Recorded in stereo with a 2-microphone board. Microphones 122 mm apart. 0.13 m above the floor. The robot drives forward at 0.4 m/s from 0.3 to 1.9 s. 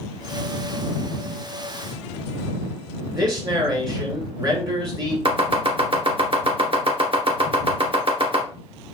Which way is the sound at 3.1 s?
35° right (ahead or behind).